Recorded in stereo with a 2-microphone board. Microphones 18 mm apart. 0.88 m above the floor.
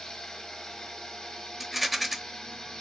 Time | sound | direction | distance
0.0 | running water | 35° left (ahead or behind) | 1.2 m
1.6 | a rattle | 5° right (ahead or behind) | 0.7 m